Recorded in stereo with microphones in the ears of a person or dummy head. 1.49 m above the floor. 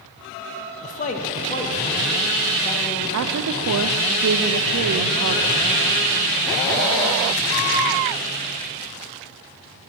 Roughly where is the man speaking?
Left.